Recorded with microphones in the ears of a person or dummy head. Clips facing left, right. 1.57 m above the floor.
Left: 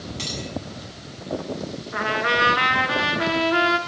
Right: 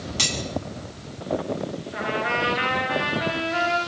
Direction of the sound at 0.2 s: 75° right (ahead or behind).